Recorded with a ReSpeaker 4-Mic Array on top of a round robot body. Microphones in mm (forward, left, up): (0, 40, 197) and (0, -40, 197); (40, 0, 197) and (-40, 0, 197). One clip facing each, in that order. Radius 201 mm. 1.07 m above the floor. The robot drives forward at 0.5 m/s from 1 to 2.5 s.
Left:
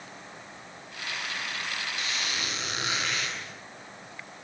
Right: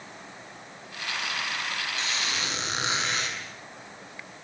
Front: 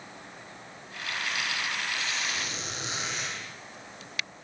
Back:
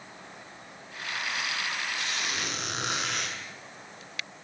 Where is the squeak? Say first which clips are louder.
Right 2 dB, even; 155° right, 7 m.